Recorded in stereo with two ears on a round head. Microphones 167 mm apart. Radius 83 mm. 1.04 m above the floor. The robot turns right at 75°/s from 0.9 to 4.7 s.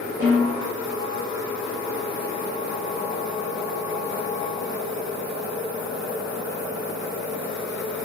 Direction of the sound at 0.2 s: 15° right (ahead or behind).